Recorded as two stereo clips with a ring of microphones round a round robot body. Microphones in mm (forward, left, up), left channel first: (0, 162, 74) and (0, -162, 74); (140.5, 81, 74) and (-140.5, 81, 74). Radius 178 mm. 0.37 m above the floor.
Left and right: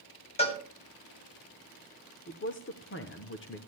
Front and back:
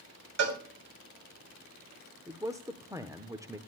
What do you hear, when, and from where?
0.4 s a cowbell: 160° left, 2 m
2.3 s a man speaking: 110° left, 1.0 m